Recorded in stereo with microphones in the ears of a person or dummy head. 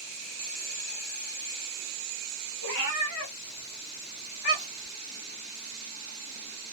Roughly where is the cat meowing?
Left.